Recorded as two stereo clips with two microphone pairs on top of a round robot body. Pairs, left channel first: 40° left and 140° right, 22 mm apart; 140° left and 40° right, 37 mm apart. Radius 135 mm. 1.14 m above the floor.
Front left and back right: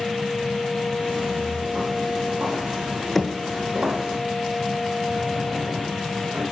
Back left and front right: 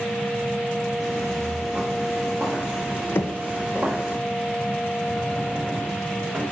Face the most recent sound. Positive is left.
turn(degrees=-115)